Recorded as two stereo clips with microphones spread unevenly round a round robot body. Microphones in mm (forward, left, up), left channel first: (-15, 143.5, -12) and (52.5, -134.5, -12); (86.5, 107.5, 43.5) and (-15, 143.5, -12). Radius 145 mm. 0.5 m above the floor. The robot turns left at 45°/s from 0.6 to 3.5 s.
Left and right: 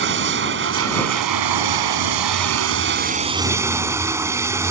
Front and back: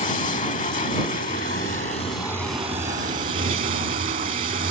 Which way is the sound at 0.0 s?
25° right.